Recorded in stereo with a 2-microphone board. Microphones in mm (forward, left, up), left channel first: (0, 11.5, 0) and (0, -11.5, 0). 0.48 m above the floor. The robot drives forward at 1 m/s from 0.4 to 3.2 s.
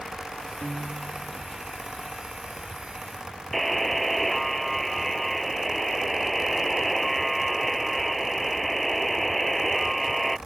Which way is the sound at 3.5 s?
5° left (ahead or behind).